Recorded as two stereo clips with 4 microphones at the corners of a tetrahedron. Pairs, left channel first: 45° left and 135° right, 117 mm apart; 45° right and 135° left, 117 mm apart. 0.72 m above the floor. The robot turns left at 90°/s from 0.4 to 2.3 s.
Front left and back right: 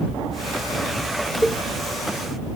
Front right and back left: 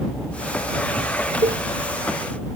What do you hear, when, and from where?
1.4 s a cowbell: 140° left; by 1.6 s 120° left